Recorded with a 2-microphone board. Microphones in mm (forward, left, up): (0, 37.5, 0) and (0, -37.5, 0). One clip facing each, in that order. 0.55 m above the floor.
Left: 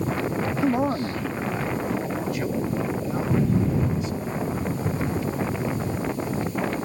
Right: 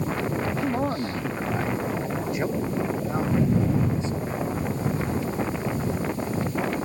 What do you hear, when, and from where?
0.6 s a man speaking: 20° left (ahead or behind); by 5.0 s 30° right (ahead or behind)